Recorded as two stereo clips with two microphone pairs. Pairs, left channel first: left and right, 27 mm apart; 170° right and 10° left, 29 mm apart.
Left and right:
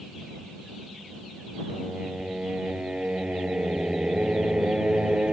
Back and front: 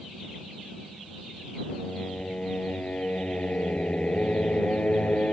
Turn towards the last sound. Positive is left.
turn(degrees=-130)